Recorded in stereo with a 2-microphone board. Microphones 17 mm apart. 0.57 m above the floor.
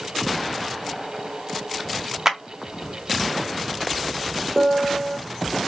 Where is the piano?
60° right (ahead or behind), 1.0 m.